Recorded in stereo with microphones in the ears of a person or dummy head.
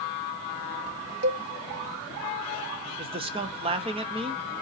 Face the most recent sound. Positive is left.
turn(degrees=-30)  # may be behind; listen again after turning